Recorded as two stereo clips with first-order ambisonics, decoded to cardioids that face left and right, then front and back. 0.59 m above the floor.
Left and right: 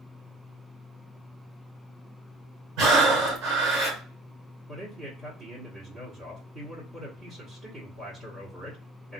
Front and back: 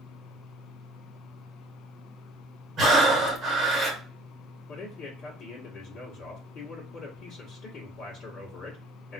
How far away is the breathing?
About 1.8 m.